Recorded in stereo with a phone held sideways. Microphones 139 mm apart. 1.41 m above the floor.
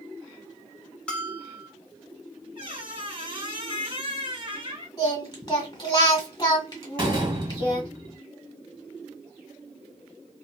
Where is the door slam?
30° right (ahead or behind), 1.2 m.